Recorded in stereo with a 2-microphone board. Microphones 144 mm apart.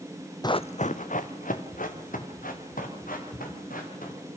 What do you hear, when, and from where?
0.4 s running footsteps: 30° left (ahead or behind), 0.6 m; by 4.2 s 85° left, 6 m